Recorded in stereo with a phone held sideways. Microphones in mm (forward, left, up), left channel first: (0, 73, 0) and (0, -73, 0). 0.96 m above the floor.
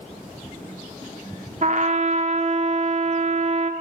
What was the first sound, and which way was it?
A trumpet, 55° right (ahead or behind).